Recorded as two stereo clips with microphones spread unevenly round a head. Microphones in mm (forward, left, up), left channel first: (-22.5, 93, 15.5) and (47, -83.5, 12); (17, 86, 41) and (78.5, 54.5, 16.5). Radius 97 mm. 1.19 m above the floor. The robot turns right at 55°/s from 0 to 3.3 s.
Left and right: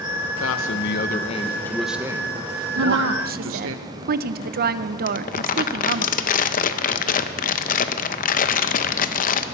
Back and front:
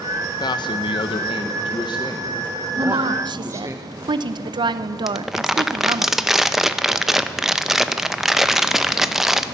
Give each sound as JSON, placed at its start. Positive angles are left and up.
{"t": 0.4, "sound": "a man speaking", "azimuth_deg": 125, "distance_m": 1.0}
{"t": 2.8, "sound": "a woman speaking", "azimuth_deg": -55, "distance_m": 0.6}
{"t": 5.1, "sound": "crumpling", "azimuth_deg": 65, "distance_m": 0.7}